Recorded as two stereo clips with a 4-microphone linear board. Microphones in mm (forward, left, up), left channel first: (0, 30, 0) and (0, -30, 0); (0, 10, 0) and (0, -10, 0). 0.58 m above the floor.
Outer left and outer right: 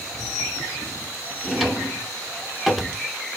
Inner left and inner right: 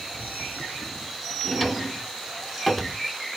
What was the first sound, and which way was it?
A drawer, centre (ahead or behind).